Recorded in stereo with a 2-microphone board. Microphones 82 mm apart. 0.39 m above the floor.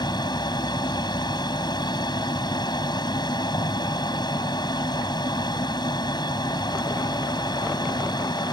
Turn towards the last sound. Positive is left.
turn(degrees=60)  # may be behind; listen again after turning